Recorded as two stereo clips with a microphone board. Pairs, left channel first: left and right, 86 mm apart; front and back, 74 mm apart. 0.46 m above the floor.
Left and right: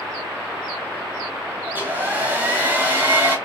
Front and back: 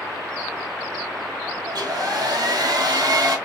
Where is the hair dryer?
155° right, 1.4 m.